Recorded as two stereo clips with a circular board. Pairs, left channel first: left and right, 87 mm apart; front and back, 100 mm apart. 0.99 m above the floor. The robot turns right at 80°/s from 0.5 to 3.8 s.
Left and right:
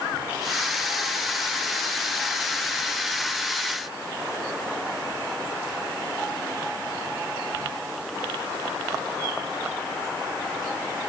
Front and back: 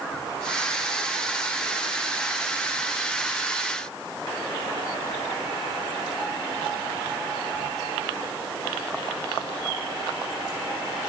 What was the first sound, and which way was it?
Only background noise.